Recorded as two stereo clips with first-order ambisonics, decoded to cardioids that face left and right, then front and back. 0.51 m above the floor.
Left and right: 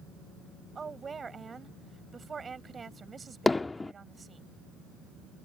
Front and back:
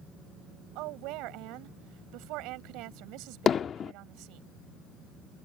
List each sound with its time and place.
0.8 s a woman speaking: 160° right
3.5 s hammering: 25° left